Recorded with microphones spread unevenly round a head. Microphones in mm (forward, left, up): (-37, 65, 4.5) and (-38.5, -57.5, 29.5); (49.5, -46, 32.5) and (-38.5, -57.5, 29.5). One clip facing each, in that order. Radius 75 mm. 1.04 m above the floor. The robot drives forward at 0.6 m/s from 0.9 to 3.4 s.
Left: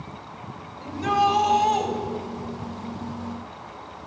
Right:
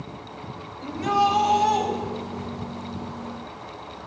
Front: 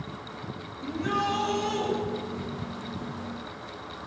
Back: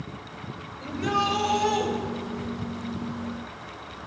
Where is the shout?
165° left, 6 m.